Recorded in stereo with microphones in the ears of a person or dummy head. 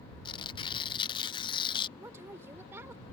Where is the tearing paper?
25° left (ahead or behind).